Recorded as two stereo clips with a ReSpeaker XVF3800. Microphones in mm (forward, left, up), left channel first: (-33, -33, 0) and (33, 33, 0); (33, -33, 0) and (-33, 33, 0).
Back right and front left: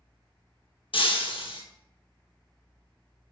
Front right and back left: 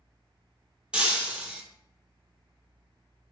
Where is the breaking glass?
145° right, 0.8 m.